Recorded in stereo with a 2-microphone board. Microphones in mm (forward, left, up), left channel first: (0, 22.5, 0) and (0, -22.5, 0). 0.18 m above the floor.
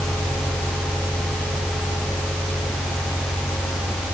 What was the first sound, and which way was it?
Only background noise.